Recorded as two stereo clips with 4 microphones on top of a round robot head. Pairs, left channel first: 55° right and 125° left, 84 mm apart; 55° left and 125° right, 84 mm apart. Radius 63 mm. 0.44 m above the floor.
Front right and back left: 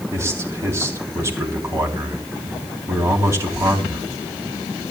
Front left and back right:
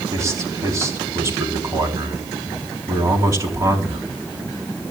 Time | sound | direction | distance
0.1 | a man speaking | straight behind | 4 m